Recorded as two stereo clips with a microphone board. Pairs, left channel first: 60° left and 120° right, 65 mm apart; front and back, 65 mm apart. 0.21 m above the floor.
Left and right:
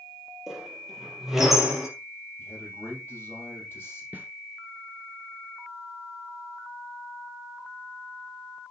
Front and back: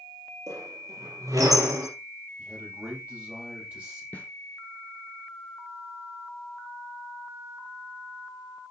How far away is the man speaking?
About 6.5 m.